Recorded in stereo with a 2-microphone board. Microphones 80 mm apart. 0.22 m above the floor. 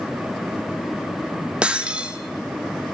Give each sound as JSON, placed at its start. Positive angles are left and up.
{"t": 1.6, "sound": "breaking glass", "side_deg": -15, "distance_m": 1.5}